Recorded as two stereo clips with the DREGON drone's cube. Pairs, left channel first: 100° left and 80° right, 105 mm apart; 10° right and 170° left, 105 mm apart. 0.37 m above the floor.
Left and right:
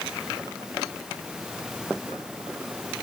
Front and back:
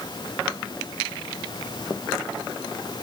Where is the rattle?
No rattle in this recording.